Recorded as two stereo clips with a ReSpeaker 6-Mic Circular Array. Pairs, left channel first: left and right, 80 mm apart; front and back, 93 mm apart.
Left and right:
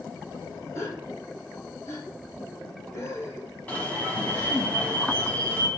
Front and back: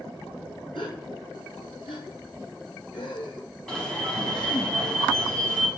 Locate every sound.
0.8 s a gasp: 35° left, 1.6 m
3.7 s an alarm: 70° left, 1.5 m